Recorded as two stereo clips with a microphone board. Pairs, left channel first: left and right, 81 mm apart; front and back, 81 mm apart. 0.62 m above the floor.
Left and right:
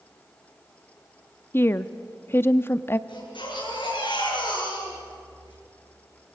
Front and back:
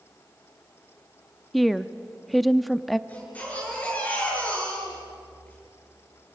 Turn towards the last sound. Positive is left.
turn(degrees=70)